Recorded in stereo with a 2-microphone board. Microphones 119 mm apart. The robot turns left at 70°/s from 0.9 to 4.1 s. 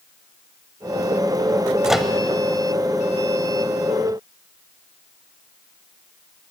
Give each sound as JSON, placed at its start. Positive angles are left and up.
{"t": 1.8, "sound": "a microwave", "side_deg": -5, "distance_m": 1.0}